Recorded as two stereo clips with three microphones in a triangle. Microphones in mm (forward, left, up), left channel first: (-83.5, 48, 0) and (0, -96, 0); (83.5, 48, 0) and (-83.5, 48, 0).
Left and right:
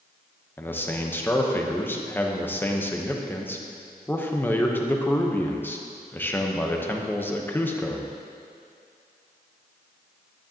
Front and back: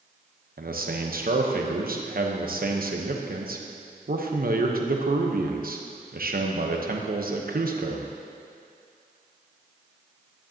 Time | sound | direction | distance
0.6 | a man speaking | 160° right | 0.9 m